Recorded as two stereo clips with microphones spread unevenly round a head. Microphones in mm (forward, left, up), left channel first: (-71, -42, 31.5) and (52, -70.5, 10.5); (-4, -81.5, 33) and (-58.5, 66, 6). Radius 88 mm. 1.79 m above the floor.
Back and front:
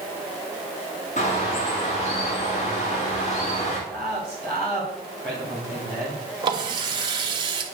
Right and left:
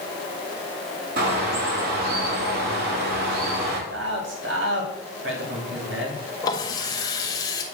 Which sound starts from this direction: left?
A man speaking, at 3.9 s.